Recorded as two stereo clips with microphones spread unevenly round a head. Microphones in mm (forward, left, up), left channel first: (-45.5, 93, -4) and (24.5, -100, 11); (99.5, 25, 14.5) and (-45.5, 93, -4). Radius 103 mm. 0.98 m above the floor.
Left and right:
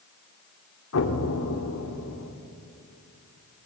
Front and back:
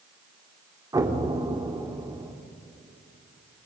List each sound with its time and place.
0.9 s an explosion: 85° left, 1.9 m